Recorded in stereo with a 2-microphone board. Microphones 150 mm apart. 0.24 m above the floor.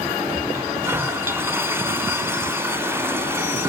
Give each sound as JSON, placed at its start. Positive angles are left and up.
{"t": 0.5, "sound": "a toilet flushing", "side_deg": -15, "distance_m": 1.7}